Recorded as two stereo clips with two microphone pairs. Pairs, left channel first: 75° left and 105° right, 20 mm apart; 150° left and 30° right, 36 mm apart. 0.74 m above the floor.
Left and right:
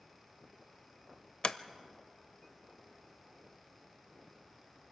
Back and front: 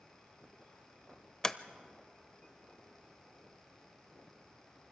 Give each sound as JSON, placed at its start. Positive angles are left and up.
{"t": 1.4, "sound": "a sliding door", "azimuth_deg": 80, "distance_m": 0.6}